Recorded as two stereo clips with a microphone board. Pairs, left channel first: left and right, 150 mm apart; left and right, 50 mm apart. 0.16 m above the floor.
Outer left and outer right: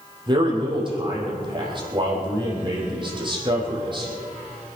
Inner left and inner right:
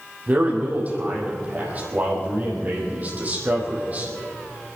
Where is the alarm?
No alarm in this recording.